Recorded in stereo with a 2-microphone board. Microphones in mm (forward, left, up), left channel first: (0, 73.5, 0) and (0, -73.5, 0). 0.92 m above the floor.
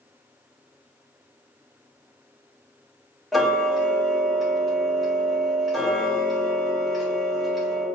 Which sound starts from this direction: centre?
Ticking, at 3.3 s.